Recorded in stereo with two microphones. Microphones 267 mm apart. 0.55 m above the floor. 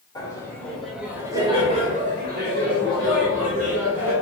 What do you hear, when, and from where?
0.1 s laughter: 15° left (ahead or behind), 1.3 m; by 4.1 s 50° right (ahead or behind), 2 m